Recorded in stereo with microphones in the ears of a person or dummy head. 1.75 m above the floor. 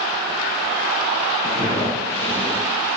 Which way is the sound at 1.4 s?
20° right (ahead or behind).